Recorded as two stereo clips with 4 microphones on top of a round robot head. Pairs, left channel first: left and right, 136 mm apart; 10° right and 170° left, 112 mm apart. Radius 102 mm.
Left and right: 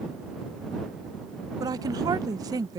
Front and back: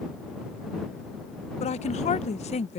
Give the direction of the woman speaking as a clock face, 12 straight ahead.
1 o'clock.